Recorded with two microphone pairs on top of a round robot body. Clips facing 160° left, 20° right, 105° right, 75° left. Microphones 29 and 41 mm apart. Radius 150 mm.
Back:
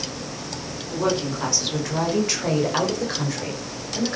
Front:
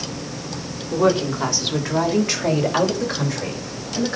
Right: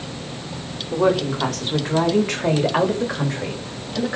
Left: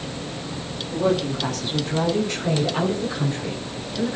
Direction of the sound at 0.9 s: 90° right.